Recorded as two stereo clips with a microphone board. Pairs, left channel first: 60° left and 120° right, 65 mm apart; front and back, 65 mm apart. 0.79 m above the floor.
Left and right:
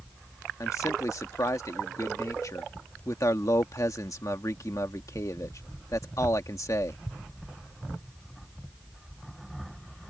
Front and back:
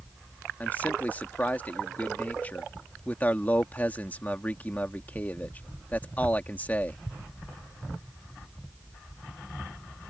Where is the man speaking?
60° left.